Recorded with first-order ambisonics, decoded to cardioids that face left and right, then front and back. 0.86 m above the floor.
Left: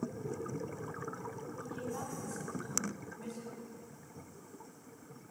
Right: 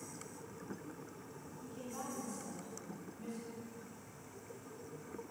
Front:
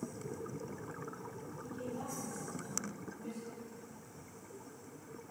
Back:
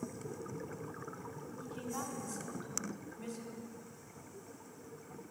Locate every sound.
1.6 s a woman speaking: 165° left, 2.5 m